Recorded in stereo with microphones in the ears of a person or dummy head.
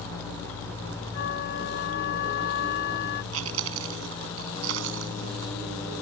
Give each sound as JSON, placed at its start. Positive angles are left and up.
{"t": 1.1, "sound": "a flute", "side_deg": 75}
{"t": 3.3, "sound": "chewing", "side_deg": -80}